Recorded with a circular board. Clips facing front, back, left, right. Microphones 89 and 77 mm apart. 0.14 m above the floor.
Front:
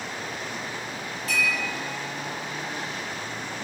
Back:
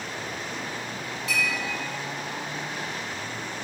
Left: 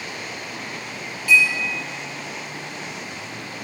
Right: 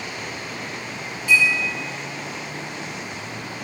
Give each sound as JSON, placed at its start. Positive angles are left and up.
{"t": 1.3, "sound": "a clink", "azimuth_deg": -25, "distance_m": 1.5}